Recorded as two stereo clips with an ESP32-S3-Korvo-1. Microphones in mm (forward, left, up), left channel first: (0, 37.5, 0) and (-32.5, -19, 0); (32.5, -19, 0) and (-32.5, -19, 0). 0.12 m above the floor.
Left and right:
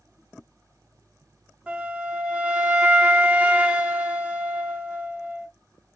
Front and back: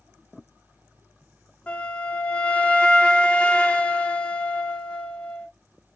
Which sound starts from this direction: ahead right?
A flute, at 1.7 s.